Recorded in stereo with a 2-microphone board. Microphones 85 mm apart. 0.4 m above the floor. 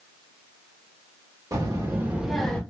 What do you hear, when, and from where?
1.5 s a child speaking: 40° right (ahead or behind), 1.2 m; by 2.6 s 15° left (ahead or behind), 0.7 m